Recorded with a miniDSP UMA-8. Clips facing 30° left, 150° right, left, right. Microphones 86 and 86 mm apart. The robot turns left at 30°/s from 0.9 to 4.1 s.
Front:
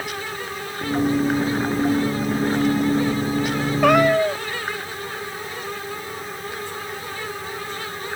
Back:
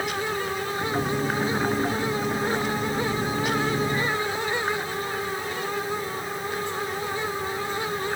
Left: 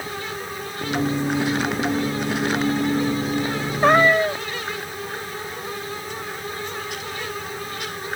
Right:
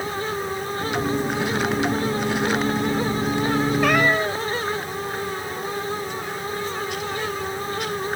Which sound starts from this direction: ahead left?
A cat meowing, at 3.8 s.